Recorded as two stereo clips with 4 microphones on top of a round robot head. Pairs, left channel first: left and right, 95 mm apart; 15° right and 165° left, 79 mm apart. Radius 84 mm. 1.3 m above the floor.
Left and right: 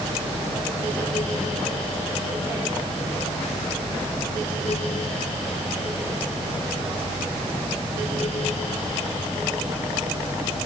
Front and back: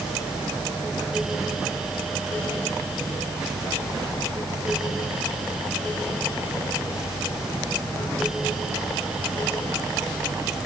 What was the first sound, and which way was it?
Only background noise.